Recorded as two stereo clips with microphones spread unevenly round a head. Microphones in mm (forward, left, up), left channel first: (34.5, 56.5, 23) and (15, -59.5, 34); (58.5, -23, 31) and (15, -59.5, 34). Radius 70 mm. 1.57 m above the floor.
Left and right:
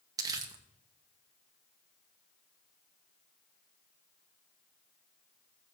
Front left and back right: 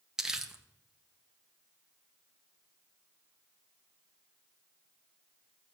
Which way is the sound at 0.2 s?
70° right.